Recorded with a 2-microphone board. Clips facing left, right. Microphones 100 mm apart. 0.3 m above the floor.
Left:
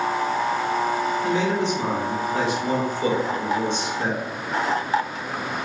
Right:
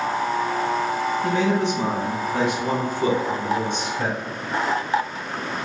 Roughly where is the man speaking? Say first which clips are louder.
Right 4 dB; right.